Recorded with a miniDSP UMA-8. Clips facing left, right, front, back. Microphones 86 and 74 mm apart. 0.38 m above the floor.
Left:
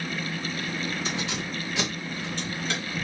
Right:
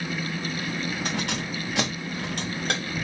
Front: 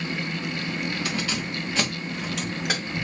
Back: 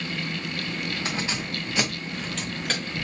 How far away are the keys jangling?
About 1.7 m.